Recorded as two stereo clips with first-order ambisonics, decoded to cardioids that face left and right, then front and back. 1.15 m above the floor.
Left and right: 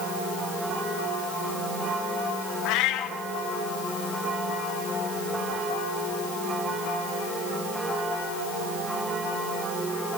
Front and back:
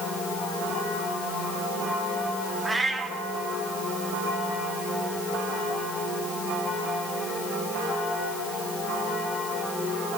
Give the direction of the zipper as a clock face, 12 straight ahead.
I don't hear a zipper.